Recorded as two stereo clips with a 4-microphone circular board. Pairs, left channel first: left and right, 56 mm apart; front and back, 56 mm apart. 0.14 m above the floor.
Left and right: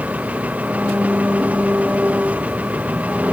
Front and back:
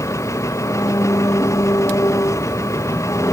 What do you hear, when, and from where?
0.0 s an engine running: 25° right